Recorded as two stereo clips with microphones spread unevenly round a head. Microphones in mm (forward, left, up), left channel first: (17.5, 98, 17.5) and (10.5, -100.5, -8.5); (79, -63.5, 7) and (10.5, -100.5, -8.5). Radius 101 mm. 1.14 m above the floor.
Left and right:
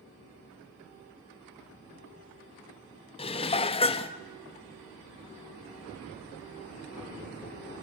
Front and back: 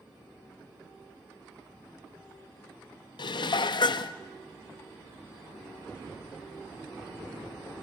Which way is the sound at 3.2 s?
30° left.